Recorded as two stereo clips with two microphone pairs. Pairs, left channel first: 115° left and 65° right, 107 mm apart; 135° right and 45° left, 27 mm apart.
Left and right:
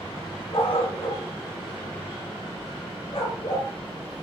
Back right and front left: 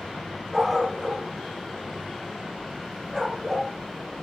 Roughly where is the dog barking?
Behind left.